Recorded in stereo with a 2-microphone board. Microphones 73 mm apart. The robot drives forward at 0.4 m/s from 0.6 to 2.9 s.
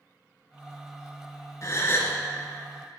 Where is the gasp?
45° left (ahead or behind), 0.7 m; by 2.2 s 35° left (ahead or behind), 0.9 m.